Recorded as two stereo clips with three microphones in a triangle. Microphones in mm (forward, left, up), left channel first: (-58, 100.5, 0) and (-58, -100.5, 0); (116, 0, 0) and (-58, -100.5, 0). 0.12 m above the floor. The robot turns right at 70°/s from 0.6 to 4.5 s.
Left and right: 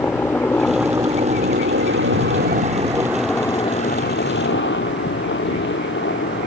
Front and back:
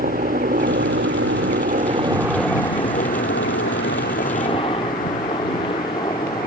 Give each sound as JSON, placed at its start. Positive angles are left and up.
{"t": 0.0, "sound": "a helicopter", "azimuth_deg": 170}